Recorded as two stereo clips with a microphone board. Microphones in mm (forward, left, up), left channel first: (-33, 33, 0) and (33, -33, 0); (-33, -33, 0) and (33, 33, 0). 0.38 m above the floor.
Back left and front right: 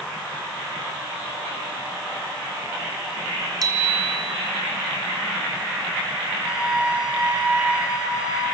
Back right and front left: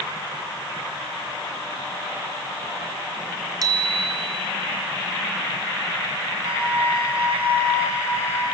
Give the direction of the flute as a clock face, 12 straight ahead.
11 o'clock.